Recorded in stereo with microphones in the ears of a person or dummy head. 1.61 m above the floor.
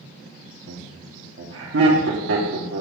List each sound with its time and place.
0.7 s laughter: 75° right (ahead or behind), 1.3 m